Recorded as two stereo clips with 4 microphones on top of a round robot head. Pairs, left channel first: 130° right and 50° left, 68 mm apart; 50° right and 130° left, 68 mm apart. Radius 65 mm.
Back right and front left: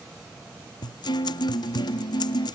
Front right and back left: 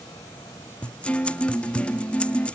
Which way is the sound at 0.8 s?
120° right.